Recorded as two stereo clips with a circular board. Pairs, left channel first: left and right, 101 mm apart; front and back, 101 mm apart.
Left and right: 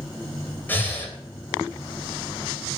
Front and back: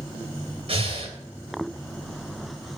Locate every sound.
0.7 s breathing: 160° left, 3 m